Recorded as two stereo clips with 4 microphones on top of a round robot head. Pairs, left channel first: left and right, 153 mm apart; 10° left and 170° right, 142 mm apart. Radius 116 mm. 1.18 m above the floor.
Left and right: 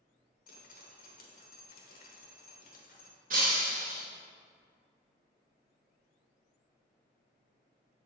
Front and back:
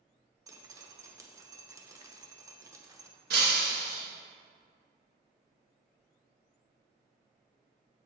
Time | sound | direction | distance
0.5 | dripping | 120° left | 1.0 m
3.3 | breaking glass | 140° right | 0.7 m